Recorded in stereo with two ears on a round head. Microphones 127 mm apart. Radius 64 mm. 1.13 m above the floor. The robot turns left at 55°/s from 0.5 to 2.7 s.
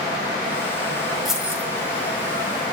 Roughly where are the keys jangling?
Centre.